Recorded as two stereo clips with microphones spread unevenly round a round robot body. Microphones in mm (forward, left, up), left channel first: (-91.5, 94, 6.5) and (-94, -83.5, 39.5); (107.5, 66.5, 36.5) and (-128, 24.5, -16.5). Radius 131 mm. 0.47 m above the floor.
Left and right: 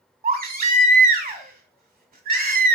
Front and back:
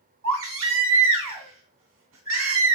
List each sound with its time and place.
0.2 s a baby crying: 130° right, 2.0 m